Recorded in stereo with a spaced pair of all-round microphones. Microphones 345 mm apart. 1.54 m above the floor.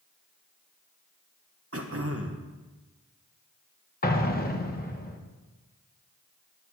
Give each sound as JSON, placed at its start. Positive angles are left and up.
{"t": 1.7, "sound": "throat clearing", "side_deg": -40, "distance_m": 1.1}
{"t": 4.0, "sound": "an explosion", "side_deg": 25, "distance_m": 1.1}